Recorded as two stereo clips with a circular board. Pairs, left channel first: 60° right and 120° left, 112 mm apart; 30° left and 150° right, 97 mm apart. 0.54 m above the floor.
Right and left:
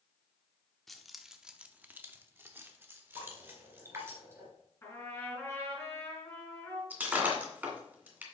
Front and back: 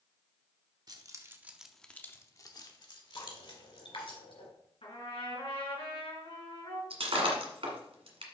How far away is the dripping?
About 2.5 m.